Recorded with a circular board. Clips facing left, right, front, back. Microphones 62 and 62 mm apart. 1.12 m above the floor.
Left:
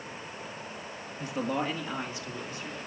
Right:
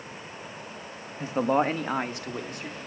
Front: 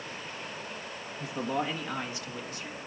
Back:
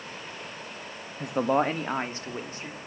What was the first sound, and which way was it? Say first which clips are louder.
A man speaking: right 7 dB, back 8 dB; 155° right.